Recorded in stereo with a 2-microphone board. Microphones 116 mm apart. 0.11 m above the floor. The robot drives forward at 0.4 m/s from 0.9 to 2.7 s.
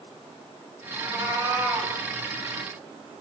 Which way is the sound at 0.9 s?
25° right (ahead or behind).